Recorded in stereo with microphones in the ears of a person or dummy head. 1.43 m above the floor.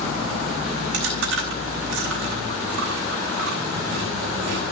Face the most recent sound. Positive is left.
turn(degrees=-70)  # may be behind; listen again after turning